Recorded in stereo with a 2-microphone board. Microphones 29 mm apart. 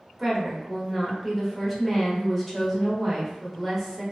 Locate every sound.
0.2 s a woman speaking: centre (ahead or behind), 1.0 m